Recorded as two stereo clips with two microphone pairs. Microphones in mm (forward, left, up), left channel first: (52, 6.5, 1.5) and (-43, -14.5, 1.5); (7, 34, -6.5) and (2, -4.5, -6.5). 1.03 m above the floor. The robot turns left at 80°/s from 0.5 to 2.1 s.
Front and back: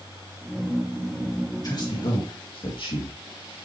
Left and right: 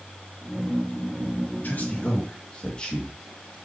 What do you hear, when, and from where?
1.6 s a man speaking: 55° left, 2.0 m; by 3.5 s 20° left, 2.0 m